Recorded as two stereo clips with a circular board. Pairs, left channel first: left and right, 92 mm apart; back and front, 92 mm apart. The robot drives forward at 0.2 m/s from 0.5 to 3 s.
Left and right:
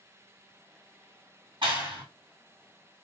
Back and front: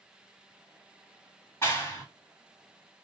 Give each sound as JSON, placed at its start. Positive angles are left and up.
{"t": 1.6, "sound": "a clap", "azimuth_deg": -115, "distance_m": 1.8}